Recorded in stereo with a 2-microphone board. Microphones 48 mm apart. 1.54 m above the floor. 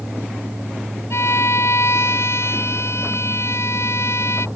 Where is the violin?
70° left (ahead or behind).